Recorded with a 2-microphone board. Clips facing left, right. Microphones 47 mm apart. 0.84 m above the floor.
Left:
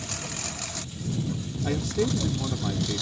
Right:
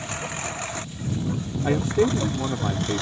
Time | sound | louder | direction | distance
0.0 | a lawn mower | right 5 dB | 25° right (ahead or behind) | ?
1.6 | a man speaking | right 6 dB | 30° right (ahead or behind) | ?